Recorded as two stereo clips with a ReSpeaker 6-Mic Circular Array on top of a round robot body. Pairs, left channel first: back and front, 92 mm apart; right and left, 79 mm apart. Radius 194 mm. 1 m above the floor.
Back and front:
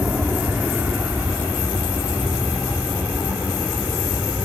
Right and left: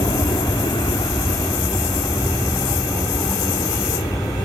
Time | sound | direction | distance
0.0 | an aircraft | 75° right | ?